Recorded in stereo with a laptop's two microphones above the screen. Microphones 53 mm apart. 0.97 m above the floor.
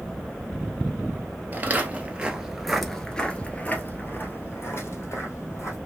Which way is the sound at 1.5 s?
35° right (ahead or behind).